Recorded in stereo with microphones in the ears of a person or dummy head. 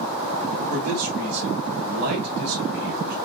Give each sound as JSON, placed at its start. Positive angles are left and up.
{"t": 0.7, "sound": "a man speaking", "side_deg": -55, "distance_m": 3.5}